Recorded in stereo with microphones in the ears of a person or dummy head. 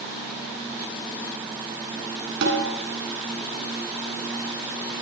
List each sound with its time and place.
2.4 s a snare drum: 70° right (ahead or behind), 9.5 m